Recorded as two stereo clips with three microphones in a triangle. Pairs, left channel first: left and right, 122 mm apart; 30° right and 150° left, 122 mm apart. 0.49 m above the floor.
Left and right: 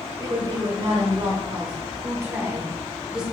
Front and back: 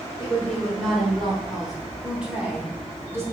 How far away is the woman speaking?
About 2 m.